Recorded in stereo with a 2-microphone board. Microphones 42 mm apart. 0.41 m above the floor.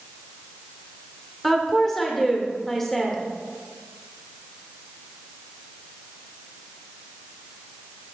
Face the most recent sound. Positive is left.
turn(degrees=10)  # may be behind; listen again after turning